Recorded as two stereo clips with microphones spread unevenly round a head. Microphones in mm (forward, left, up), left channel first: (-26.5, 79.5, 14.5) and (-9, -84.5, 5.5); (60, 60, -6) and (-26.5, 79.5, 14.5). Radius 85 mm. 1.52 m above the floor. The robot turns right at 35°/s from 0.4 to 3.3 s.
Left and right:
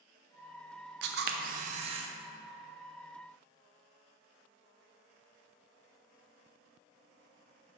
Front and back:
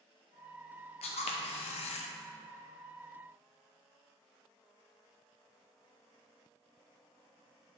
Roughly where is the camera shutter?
Ahead right.